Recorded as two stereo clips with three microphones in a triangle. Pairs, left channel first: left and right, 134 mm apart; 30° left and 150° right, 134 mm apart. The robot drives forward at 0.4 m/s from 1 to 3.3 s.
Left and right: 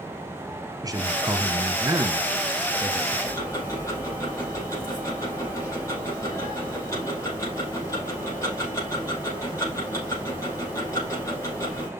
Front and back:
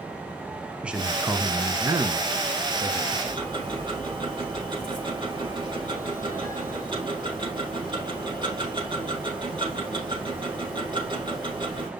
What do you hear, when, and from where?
0.8 s a man speaking: 75° right, 1.1 m; by 3.2 s 145° right, 1.3 m
3.3 s ticking: 155° left, 5 m